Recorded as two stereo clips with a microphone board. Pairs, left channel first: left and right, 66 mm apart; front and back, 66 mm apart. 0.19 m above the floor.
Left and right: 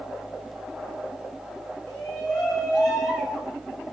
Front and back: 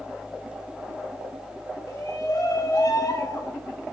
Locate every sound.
1.9 s a shout: 25° left, 3.5 m; by 3.5 s 5° right, 5 m